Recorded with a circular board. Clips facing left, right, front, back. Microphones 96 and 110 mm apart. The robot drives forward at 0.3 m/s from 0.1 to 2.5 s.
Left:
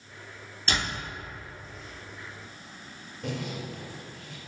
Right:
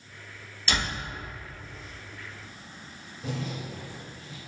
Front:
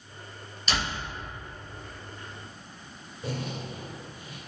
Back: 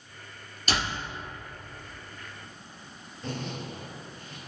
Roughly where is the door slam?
Behind left.